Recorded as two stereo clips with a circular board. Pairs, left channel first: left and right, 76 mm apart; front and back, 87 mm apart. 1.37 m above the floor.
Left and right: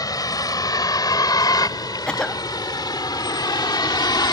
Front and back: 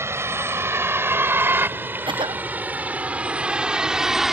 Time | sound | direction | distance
0.0 | a vehicle | 120° left | ?
2.1 | a cough | 170° left | ?